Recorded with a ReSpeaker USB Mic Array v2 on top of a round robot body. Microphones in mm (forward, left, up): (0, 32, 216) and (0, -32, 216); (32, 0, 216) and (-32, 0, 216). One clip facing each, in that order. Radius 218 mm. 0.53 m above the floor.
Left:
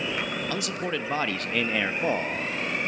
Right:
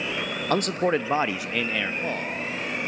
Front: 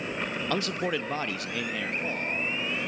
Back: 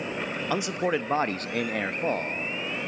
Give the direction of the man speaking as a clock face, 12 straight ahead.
3 o'clock.